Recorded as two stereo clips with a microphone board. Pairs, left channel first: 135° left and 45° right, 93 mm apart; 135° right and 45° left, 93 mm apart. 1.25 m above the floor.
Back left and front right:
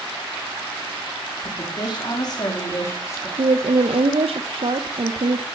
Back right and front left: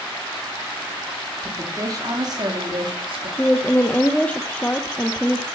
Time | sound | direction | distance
1.4 | a woman speaking | 105° left | 4 m
3.4 | a woman speaking | 60° right | 0.9 m